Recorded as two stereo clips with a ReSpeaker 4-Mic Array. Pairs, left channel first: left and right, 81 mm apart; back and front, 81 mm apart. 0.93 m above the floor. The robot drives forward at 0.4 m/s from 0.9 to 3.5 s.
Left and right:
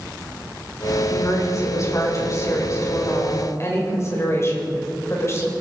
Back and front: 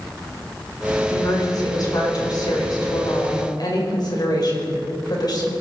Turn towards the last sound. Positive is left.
turn(degrees=145)